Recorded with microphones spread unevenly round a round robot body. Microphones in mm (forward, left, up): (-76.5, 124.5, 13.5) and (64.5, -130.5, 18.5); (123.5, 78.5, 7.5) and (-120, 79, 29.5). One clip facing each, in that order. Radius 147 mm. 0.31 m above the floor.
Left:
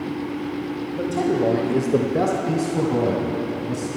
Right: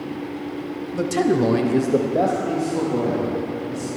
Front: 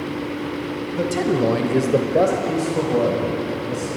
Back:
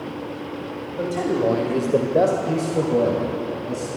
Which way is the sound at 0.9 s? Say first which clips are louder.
Right 3 dB, front 2 dB; 45° right.